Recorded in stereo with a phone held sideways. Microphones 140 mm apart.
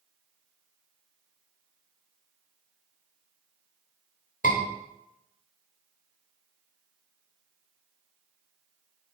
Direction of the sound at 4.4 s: 80° left.